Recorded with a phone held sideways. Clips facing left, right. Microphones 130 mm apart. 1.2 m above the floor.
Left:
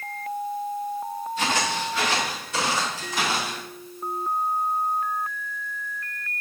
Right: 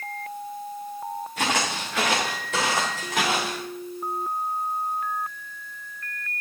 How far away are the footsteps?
About 7 m.